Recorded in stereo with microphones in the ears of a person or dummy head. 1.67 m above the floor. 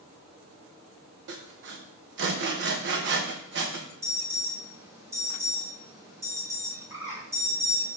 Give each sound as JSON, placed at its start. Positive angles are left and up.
{"t": 1.3, "sound": "sawing", "side_deg": -65, "distance_m": 1.1}
{"t": 4.0, "sound": "an alarm", "side_deg": -15, "distance_m": 1.4}
{"t": 6.9, "sound": "a bird", "side_deg": -20, "distance_m": 4.0}